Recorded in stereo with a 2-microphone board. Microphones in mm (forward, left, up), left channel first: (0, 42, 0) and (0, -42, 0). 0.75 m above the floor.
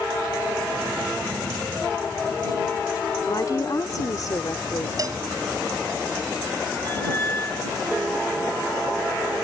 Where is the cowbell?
50° right (ahead or behind).